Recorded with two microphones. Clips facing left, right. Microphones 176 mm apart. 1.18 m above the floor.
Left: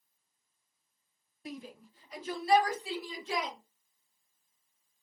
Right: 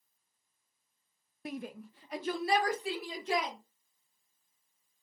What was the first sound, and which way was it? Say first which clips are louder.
A shout: right 4 dB; 60° right (ahead or behind).